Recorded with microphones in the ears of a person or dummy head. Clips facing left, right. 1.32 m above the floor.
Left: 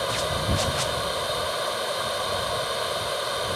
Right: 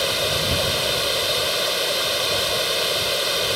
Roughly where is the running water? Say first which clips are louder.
Right 3 dB; right.